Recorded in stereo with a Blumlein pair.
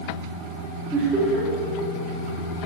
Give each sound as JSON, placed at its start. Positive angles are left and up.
{"t": 0.9, "sound": "laughter", "azimuth_deg": -10, "distance_m": 2.5}